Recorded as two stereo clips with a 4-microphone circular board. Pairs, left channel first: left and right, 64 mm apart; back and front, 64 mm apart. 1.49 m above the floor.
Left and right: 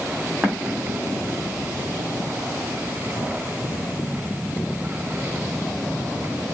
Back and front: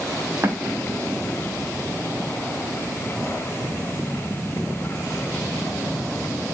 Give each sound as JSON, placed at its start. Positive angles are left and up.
{"t": 0.4, "sound": "an explosion", "azimuth_deg": -35, "distance_m": 1.5}